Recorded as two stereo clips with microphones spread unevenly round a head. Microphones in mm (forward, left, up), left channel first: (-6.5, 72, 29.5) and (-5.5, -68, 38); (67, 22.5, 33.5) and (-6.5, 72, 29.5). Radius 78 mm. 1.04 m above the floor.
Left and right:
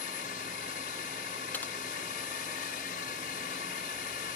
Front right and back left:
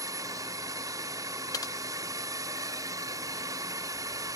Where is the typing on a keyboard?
10° left.